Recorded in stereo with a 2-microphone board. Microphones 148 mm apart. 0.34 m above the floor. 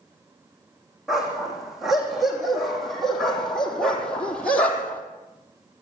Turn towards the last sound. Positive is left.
turn(degrees=10)  # may be behind; listen again after turning